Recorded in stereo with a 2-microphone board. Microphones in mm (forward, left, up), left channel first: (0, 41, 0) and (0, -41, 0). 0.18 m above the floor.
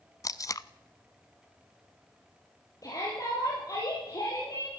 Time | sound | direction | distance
0.2 | tape being pulled | 40° left (ahead or behind) | 0.6 m
2.8 | a shout | 45° left (ahead or behind) | 6 m